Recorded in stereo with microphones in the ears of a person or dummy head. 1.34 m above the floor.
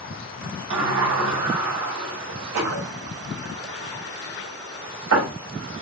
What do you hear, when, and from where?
0.7 s a sliding door: 80° right, 2.5 m